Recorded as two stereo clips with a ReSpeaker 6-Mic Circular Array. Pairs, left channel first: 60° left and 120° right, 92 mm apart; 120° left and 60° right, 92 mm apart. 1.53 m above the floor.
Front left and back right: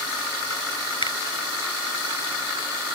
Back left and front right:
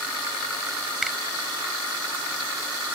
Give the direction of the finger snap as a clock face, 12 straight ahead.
11 o'clock.